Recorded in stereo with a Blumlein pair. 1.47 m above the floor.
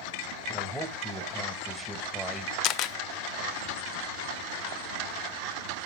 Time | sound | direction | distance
0.5 | a man speaking | 5° left | 2.0 m
2.6 | a camera shutter | 35° left | 0.6 m